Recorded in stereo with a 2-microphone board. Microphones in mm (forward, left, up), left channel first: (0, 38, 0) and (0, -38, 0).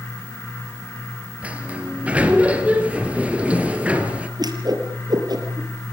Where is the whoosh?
60° right (ahead or behind), 5.5 m.